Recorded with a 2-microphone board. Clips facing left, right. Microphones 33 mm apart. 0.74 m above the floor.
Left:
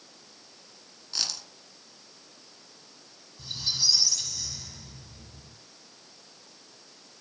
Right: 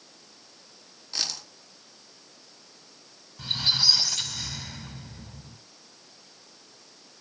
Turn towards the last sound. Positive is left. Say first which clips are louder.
# right 6 dB
turn(degrees=-50)  # may be behind; listen again after turning